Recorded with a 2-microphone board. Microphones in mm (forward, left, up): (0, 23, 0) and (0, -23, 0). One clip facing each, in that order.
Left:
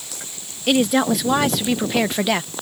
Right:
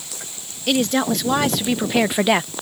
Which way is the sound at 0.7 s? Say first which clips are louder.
Left 2 dB; 10° left (ahead or behind).